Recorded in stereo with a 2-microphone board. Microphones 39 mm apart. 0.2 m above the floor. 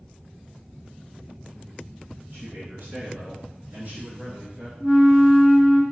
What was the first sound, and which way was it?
A man speaking, 60° right (ahead or behind).